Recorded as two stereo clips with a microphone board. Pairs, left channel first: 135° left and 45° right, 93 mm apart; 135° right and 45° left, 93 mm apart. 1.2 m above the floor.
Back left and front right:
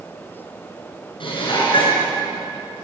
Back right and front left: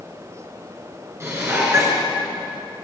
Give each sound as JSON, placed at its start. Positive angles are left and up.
{"t": 1.2, "sound": "dishes clattering", "azimuth_deg": 105, "distance_m": 9.0}